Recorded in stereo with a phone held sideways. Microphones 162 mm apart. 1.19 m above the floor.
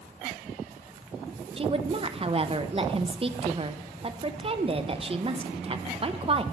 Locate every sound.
1.6 s a woman speaking: 35° right (ahead or behind), 0.7 m